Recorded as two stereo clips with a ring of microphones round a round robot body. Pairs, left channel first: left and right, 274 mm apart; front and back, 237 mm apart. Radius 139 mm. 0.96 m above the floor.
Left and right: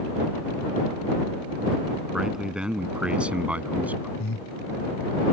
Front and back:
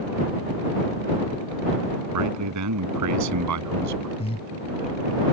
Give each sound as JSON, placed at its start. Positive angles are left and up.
{"t": 2.1, "sound": "a man speaking", "azimuth_deg": -175}
{"t": 4.2, "sound": "breathing", "azimuth_deg": 65}